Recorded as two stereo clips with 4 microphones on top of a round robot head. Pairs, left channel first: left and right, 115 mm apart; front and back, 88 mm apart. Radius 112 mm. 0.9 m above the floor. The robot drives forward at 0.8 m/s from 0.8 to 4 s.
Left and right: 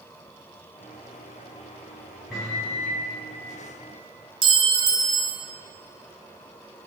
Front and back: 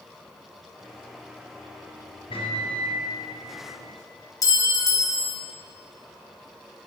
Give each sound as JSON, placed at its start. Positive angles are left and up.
{"t": 2.3, "sound": "a microwave", "azimuth_deg": 0, "distance_m": 1.9}
{"t": 4.4, "sound": "a clink", "azimuth_deg": -50, "distance_m": 0.6}